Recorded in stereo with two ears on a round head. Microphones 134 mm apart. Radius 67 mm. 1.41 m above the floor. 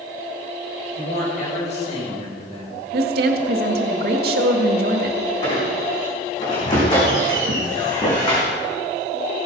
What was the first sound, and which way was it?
A man speaking, 55° left (ahead or behind).